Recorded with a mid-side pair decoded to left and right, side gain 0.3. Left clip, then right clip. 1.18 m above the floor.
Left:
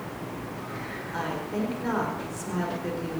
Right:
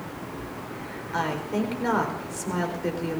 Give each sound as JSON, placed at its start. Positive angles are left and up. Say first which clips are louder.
{"t": 1.1, "sound": "a woman speaking", "louder": "right 4 dB", "azimuth_deg": -60, "distance_m": 4.5}